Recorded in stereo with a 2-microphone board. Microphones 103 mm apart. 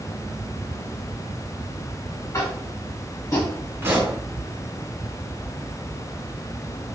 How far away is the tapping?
About 1.4 m.